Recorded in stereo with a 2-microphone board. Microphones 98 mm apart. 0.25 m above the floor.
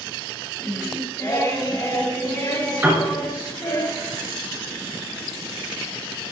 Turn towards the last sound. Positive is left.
turn(degrees=-20)  # may be behind; listen again after turning